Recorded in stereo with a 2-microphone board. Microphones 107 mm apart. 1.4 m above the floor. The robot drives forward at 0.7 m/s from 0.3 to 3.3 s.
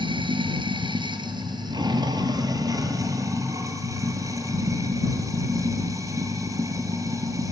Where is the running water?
50° right (ahead or behind), 2.0 m; by 7.5 s 30° right (ahead or behind), 3 m.